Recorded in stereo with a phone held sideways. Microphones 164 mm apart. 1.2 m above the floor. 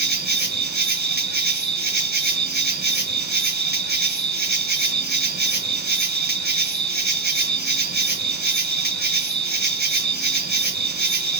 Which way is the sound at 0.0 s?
75° right (ahead or behind).